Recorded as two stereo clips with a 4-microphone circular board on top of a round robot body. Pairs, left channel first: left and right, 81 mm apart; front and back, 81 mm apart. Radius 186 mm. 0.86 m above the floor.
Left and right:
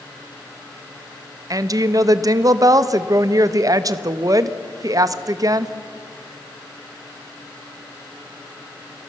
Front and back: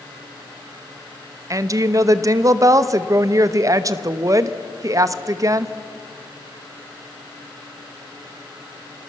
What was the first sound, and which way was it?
A woman speaking, 130° right.